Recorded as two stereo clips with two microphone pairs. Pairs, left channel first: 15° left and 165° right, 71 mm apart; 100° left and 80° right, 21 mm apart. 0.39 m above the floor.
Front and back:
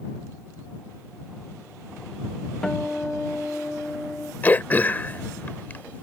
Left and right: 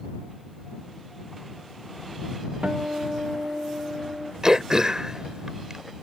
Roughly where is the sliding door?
I don't hear a sliding door.